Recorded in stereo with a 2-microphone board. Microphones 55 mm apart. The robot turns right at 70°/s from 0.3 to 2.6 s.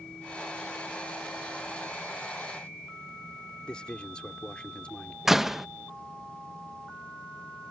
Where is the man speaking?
20° left (ahead or behind).